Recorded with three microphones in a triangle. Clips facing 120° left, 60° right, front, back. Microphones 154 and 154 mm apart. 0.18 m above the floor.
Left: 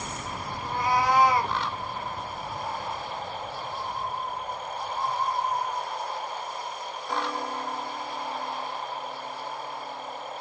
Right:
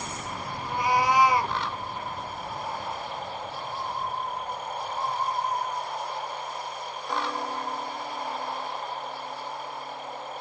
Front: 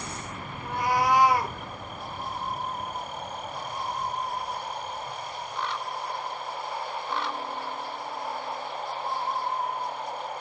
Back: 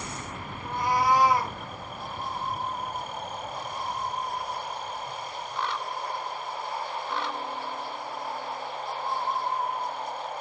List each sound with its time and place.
0.6 s a cat meowing: 20° left, 1.7 m